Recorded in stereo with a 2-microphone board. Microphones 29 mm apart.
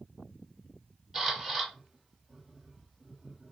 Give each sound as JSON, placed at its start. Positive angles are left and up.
{"t": 1.1, "sound": "a camera shutter", "side_deg": -5, "distance_m": 1.4}